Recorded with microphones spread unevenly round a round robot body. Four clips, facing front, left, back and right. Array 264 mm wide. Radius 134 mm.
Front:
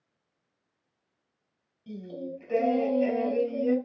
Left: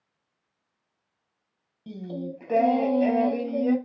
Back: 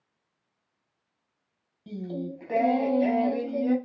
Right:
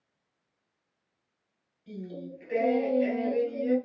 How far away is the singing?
About 2.5 m.